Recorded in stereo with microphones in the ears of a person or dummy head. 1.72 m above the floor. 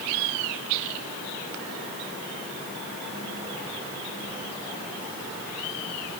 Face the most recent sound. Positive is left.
No sound to turn to.